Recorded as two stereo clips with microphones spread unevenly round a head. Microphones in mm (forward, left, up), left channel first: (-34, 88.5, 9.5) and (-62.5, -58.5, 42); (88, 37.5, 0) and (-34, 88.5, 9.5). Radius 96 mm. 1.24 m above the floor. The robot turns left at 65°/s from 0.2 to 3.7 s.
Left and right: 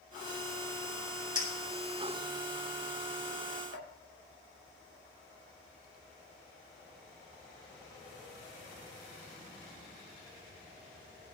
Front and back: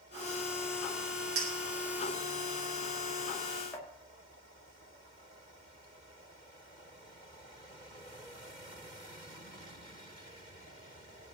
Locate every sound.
1.4 s a clink: 160° right, 4.5 m; by 3.9 s 45° left, 4.5 m